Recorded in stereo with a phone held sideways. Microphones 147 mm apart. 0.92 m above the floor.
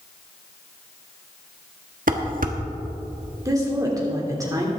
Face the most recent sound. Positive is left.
turn(degrees=-25)  # may be behind; listen again after turning